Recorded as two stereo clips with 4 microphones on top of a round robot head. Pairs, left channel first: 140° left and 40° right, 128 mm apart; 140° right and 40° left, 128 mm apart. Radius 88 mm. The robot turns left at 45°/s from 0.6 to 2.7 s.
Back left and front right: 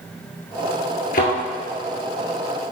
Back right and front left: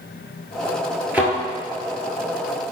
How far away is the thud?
About 2 m.